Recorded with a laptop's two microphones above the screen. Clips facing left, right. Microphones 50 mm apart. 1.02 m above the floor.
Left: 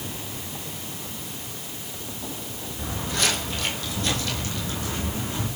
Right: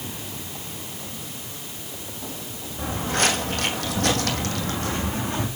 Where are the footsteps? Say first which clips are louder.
Right 4 dB; 35° right (ahead or behind), 2.0 m; by 5.5 s 45° right (ahead or behind), 3 m.